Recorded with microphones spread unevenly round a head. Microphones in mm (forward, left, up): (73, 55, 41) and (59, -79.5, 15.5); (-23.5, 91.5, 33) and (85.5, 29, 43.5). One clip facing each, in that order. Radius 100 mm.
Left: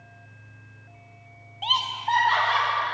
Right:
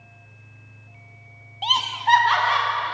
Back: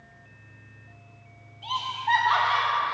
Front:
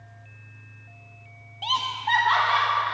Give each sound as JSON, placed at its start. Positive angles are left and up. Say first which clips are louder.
{"t": 1.6, "sound": "laughter", "louder": "right 5 dB, front 1 dB", "azimuth_deg": -35, "distance_m": 0.5}